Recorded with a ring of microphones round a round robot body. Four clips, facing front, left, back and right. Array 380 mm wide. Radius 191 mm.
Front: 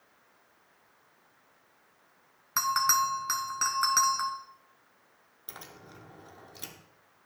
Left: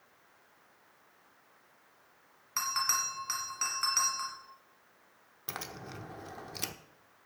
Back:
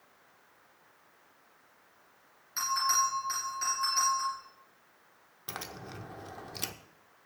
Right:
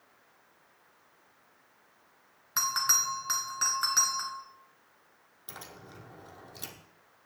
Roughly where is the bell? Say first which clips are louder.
Right 2 dB, front 3 dB; ahead.